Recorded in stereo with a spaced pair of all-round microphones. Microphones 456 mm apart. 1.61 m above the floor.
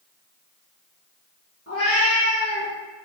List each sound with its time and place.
1.7 s a cat meowing: 30° left (ahead or behind), 1.0 m